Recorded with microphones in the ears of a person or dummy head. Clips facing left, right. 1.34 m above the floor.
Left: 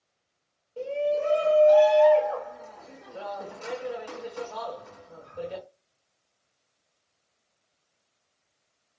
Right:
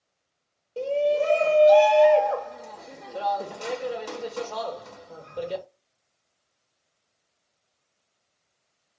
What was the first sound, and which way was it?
A shout, 55° right (ahead or behind).